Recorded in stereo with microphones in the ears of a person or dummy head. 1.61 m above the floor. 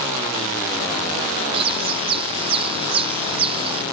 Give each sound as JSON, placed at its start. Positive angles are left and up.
{"t": 1.5, "sound": "a bird", "side_deg": -30}